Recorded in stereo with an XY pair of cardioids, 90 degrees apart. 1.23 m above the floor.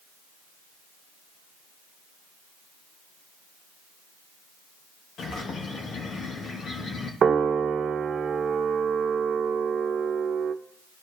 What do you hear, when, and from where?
5.2 s a bird: 65° left, 2.0 m
7.2 s a piano: 55° right, 0.9 m